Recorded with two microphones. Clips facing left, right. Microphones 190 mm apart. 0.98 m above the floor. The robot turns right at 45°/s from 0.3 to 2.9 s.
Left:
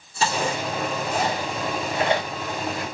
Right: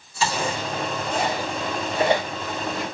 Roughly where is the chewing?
Left.